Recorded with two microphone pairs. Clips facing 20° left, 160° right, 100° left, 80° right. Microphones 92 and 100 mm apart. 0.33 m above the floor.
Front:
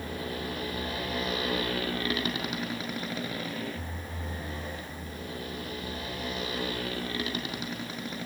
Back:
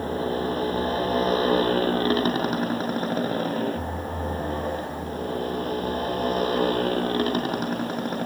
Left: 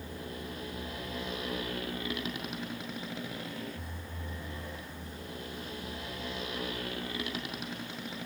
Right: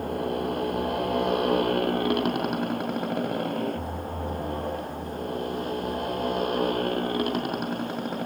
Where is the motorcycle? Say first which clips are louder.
Back 10 dB, right 14 dB; 110° right; by 8.3 s 120° right.